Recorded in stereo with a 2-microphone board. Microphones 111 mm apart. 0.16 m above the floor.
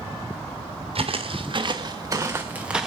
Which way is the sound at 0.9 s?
60° right (ahead or behind).